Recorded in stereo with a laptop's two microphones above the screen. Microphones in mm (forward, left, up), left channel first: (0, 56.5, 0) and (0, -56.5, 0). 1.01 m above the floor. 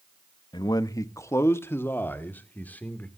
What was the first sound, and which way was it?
A man speaking, 40° left (ahead or behind).